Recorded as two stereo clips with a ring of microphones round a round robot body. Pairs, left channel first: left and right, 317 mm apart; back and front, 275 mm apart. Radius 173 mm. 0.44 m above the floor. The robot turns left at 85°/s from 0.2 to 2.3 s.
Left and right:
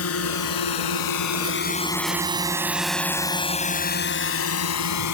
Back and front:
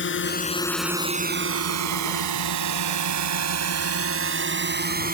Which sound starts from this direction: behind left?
A drone, at 0.0 s.